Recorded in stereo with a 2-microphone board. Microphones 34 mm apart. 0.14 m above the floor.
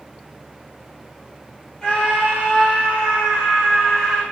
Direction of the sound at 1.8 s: 20° left (ahead or behind).